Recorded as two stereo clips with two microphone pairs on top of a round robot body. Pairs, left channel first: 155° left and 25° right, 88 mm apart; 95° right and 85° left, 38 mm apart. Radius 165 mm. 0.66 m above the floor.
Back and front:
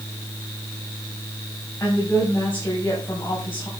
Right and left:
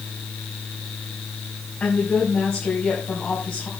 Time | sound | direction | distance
1.8 | a woman speaking | 140° right | 5 m